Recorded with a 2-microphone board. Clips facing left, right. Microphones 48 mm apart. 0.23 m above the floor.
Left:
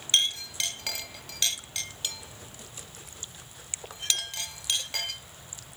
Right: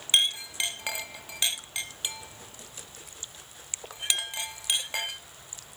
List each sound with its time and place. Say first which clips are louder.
0.1 s a clink: right 1 dB; 20° right (ahead or behind), 0.9 m